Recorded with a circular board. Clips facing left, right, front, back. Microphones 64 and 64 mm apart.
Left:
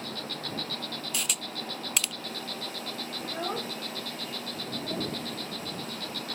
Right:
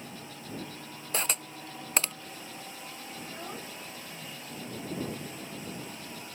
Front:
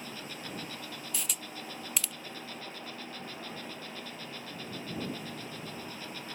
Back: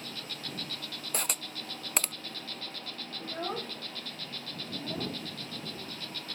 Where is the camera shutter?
140° right.